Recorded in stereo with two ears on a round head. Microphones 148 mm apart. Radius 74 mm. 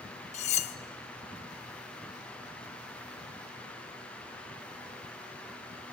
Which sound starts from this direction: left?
Cutlery clinking, at 0.3 s.